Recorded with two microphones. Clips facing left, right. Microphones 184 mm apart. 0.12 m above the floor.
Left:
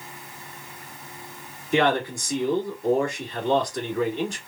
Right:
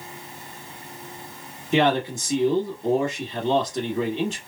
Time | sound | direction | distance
1.7 | a man speaking | 20° right (ahead or behind) | 1.5 m